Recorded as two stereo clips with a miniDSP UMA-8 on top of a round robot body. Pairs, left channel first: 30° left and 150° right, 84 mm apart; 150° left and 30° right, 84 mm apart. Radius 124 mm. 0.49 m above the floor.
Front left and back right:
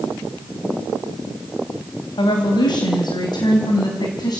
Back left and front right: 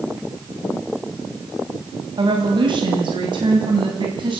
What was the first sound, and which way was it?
A woman speaking, straight ahead.